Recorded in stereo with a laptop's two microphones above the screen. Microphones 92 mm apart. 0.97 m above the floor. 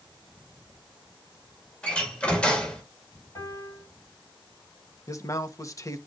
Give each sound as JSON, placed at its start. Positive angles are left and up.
{"t": 1.8, "sound": "a door slam", "side_deg": 10, "distance_m": 2.5}
{"t": 3.4, "sound": "a piano", "side_deg": 30, "distance_m": 6.5}
{"t": 5.1, "sound": "a man speaking", "side_deg": 35, "distance_m": 1.3}